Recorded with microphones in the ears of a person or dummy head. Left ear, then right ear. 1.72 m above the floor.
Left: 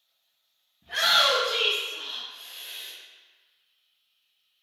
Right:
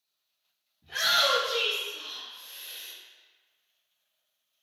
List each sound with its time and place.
0.8 s a shout: 35° left (ahead or behind), 0.6 m; by 2.9 s 5° right (ahead or behind), 1.7 m